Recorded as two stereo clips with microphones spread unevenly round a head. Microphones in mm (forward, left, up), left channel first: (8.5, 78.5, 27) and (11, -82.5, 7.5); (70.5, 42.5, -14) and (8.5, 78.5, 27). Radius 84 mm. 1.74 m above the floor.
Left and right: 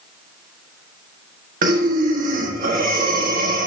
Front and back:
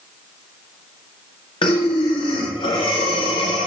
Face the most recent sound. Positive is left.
turn(degrees=-50)